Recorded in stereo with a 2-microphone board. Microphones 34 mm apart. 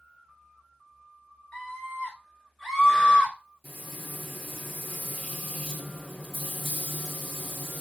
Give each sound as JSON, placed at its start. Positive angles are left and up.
{"t": 1.5, "sound": "a scream", "side_deg": 15, "distance_m": 1.4}
{"t": 3.6, "sound": "frying", "side_deg": -5, "distance_m": 1.8}